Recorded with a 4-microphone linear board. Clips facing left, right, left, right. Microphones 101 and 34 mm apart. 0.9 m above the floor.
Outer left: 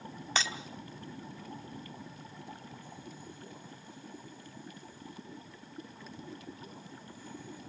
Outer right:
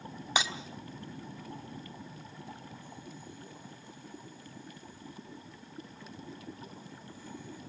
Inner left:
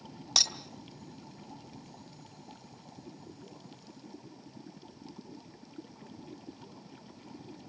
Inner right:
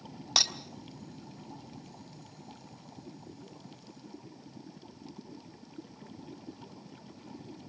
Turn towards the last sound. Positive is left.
turn(degrees=-15)  # may be behind; listen again after turning